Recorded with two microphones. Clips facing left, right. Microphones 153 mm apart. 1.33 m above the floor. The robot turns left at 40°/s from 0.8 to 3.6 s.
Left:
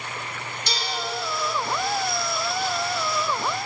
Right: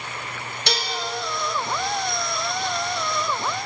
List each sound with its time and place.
0.7 s dishes clattering: 75° right (ahead or behind), 1.1 m